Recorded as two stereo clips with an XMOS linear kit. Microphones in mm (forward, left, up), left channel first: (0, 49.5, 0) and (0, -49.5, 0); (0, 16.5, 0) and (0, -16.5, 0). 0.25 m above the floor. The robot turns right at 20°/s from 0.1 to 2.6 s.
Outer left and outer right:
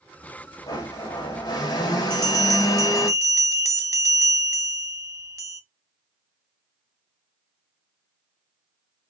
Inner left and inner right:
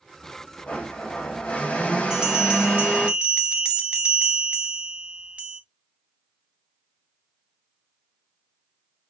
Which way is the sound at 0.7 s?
65° left.